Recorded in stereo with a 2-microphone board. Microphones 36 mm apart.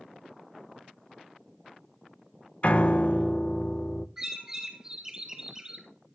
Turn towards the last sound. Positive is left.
turn(degrees=-15)  # may be behind; listen again after turning